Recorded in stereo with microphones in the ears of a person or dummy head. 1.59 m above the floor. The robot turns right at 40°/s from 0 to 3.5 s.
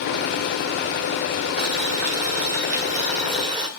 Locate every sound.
1.6 s boiling: 110° right, 1.5 m; by 3.7 s 30° right, 1.5 m